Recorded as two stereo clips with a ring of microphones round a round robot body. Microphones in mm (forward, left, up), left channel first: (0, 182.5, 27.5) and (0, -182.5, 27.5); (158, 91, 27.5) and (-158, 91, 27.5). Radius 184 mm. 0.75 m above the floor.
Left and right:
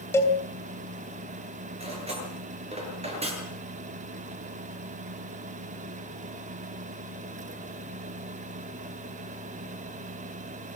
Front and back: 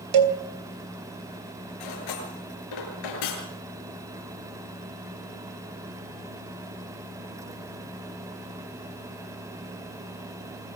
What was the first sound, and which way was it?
A cowbell, 175° left.